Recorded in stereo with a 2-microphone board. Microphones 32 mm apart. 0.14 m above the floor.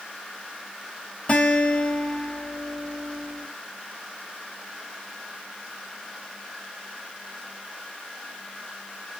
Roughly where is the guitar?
Left.